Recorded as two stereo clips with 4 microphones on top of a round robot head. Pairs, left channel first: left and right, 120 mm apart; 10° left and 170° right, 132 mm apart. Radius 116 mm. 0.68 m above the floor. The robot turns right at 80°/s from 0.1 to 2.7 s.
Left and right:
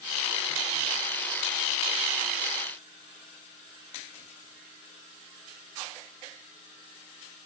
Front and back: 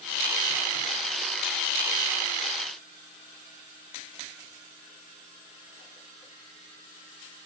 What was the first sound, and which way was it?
Only background noise.